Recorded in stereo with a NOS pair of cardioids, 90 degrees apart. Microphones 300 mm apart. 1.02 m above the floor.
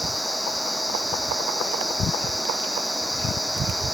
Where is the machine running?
Straight ahead.